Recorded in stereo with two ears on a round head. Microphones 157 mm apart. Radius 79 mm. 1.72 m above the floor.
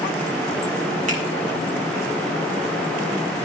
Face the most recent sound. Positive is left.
turn(degrees=-45)  # may be behind; listen again after turning